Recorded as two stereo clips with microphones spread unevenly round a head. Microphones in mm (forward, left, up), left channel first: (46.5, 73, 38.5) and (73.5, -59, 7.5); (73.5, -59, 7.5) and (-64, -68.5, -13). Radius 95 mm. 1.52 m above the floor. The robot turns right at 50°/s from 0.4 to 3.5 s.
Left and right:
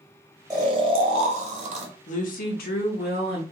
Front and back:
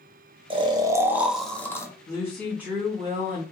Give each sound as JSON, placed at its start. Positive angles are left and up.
{"t": 0.5, "sound": "snoring", "azimuth_deg": -135, "distance_m": 0.7}
{"t": 2.1, "sound": "a woman speaking", "azimuth_deg": 75, "distance_m": 0.6}